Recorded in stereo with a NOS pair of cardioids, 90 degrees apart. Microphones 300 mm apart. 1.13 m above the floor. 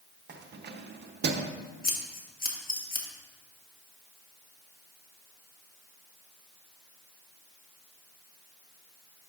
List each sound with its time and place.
0.3 s keys jangling: 35° right, 0.7 m
1.8 s scissors: 30° left, 1.3 m